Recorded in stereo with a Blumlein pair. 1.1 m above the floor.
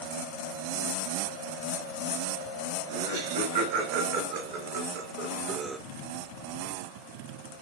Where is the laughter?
60° right, 4 m; by 5.8 s 5° right, 0.5 m.